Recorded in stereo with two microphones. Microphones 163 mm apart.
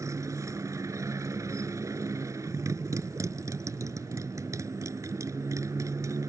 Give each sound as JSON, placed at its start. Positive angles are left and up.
{"t": 0.0, "sound": "a motorcycle", "side_deg": -20}